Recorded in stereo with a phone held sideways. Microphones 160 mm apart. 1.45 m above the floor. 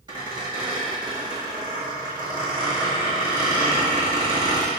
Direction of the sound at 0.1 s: 25° right (ahead or behind).